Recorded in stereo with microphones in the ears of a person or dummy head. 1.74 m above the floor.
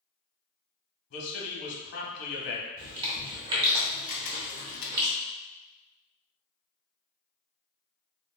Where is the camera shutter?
70° left (ahead or behind), 0.6 m.